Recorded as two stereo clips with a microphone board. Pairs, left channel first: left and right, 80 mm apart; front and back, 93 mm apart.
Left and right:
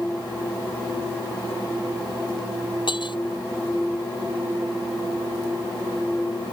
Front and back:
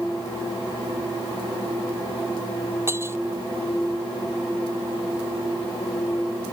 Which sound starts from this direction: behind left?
Breaking glass, at 2.9 s.